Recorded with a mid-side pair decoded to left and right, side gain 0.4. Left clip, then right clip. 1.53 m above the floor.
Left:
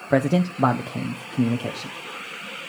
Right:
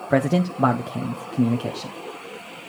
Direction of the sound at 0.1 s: Straight ahead.